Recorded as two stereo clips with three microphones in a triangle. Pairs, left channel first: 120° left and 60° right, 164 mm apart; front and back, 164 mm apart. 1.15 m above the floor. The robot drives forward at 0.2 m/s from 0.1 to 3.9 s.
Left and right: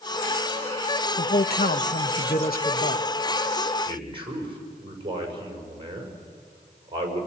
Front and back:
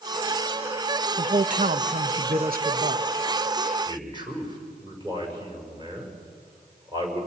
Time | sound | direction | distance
1.2 | a man speaking | 140° left | 0.7 m
3.9 | a man speaking | 120° right | 6 m